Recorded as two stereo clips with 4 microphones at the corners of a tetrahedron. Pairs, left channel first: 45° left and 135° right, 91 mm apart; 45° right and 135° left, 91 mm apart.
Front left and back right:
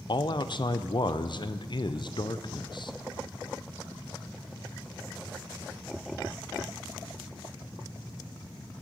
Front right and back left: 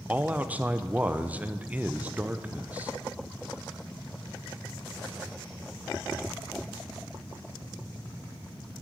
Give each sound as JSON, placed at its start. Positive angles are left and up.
{"t": 0.1, "sound": "a man speaking", "azimuth_deg": 65, "distance_m": 0.5}